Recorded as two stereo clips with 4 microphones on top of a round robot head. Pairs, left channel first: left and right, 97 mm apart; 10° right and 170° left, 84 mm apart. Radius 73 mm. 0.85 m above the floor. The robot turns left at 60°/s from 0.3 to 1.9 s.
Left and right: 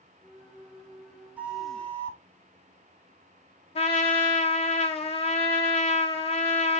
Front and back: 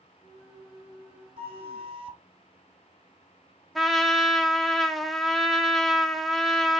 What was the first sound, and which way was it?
A flute, 165° right.